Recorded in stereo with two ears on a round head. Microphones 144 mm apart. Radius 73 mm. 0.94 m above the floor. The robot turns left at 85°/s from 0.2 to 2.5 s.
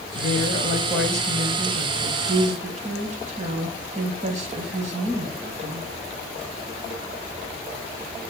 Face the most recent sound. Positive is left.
turn(degrees=-130)